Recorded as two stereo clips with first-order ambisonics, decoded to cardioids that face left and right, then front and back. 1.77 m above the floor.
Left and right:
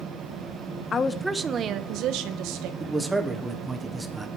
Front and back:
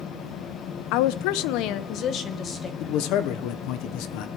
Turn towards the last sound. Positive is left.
turn(degrees=-15)